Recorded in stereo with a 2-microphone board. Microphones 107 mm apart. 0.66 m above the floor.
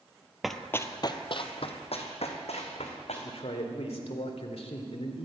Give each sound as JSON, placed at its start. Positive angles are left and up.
{"t": 0.4, "sound": "running footsteps", "side_deg": 0, "distance_m": 0.9}
{"t": 3.2, "sound": "a man speaking", "side_deg": 70, "distance_m": 1.9}